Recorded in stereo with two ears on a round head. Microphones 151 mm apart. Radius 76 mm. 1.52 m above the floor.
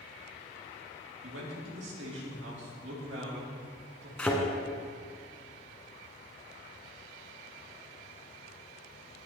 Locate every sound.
1.2 s a man speaking: 85° right, 3 m
4.2 s a thud: 10° left (ahead or behind), 1.9 m